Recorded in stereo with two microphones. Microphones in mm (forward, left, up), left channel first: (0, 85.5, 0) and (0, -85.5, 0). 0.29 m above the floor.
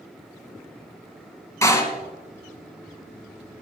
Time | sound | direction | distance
1.6 | a door slam | 15° left (ahead or behind) | 1.7 m